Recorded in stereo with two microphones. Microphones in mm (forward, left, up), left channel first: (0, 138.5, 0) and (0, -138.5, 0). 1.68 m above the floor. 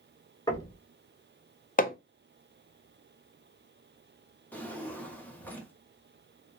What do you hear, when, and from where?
0.5 s knocking: 15° left (ahead or behind), 1.3 m
1.8 s hammering: 30° left (ahead or behind), 0.6 m
4.5 s a drawer: 5° left (ahead or behind), 1.2 m